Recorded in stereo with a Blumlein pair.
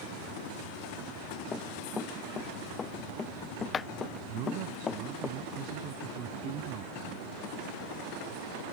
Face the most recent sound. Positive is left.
turn(degrees=-40)